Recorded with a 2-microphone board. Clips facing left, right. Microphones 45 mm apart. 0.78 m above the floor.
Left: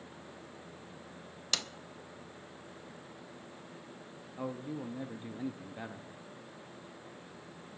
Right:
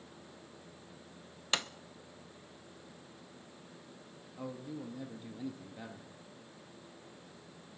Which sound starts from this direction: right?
A sliding door, at 1.5 s.